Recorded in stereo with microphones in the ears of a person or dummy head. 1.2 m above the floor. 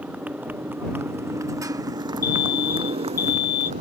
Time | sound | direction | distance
0.0 | a motorcycle | 5° right (ahead or behind) | ?
2.2 | an alarm | 15° left (ahead or behind) | ?